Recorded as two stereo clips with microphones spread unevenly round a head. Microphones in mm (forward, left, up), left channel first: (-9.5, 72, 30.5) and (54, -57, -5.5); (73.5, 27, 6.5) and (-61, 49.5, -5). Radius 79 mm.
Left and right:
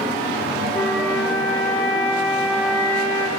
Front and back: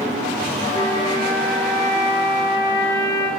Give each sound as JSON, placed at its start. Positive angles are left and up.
{"t": 0.7, "sound": "a flute", "azimuth_deg": 40, "distance_m": 1.1}